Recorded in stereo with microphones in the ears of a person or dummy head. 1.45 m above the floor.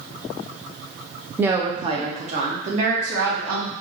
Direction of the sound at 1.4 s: 10° right (ahead or behind).